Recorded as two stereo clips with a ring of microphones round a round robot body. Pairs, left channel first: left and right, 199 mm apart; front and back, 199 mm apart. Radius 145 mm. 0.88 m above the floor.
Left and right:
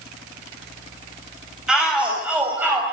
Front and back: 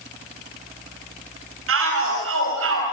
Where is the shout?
175° right, 6 m; by 2.8 s 170° right, 5.5 m.